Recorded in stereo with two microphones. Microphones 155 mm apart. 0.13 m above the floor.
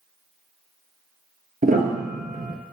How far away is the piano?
About 0.7 m.